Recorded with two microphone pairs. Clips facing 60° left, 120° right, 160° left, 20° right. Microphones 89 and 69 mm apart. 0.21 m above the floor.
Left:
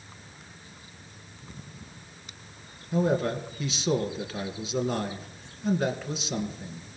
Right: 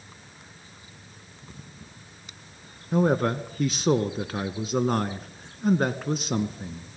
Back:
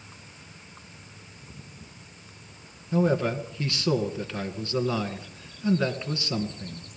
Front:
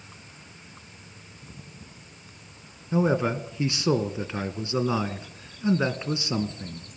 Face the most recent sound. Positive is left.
turn(degrees=-90)